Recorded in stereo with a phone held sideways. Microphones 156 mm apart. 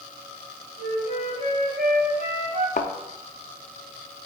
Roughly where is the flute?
Right.